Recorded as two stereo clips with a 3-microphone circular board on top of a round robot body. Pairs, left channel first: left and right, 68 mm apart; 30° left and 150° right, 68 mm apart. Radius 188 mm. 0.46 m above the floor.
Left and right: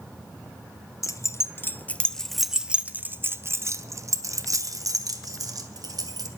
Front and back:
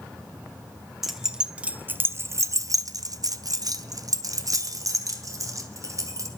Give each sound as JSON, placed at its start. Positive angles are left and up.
{"t": 1.0, "sound": "keys jangling", "azimuth_deg": 125, "distance_m": 1.0}